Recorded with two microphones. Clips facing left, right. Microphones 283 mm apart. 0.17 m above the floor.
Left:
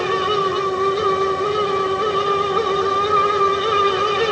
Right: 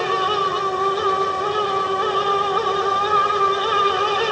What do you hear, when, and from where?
Only background noise.